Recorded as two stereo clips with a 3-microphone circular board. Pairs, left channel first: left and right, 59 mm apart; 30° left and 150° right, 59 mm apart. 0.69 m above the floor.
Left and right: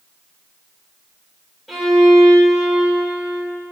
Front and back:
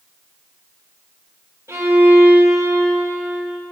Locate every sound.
1.7 s a violin: straight behind, 2.5 m